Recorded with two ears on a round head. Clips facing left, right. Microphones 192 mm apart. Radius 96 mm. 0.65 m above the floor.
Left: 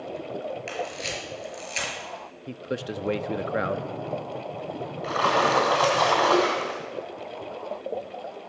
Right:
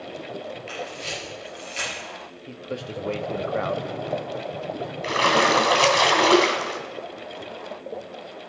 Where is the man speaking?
20° left (ahead or behind), 0.6 m.